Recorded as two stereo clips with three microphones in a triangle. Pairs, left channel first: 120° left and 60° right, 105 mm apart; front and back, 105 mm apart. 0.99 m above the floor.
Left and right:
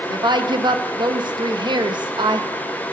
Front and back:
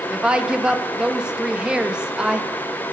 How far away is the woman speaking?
About 1.2 m.